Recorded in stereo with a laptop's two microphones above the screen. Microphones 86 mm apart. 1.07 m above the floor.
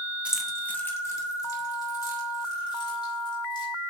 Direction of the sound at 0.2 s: 15° right (ahead or behind).